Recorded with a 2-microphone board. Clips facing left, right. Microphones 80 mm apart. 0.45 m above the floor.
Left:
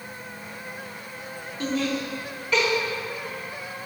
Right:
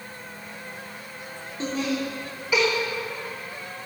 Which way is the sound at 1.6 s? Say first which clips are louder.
Even; 25° right (ahead or behind).